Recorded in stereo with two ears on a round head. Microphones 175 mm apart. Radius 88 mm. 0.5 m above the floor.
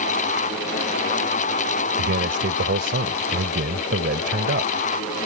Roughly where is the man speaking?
Right.